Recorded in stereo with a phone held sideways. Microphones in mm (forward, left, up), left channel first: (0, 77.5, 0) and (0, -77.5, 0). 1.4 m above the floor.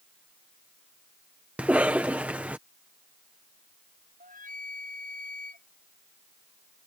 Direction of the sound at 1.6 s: 10° right (ahead or behind).